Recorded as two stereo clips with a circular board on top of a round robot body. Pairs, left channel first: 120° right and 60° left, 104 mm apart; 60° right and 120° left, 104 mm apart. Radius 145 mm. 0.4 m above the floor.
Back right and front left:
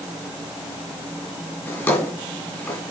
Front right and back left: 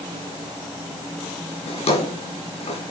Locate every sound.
1.7 s a drawer: 50° right, 6.5 m